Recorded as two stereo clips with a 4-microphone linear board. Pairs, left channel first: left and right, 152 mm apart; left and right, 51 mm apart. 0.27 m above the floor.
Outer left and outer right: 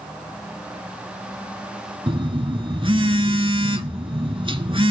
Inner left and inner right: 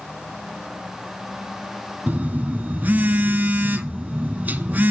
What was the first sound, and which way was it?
A phone buzzing, 35° right (ahead or behind).